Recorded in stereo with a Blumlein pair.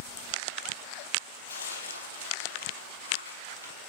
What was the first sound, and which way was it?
Tearing paper, 70° left.